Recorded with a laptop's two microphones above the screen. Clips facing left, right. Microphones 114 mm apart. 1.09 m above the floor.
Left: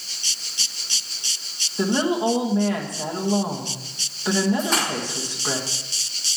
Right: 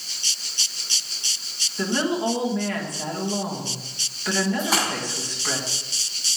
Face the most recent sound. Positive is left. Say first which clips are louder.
# left 1 dB
turn(degrees=-5)  # may be behind; listen again after turning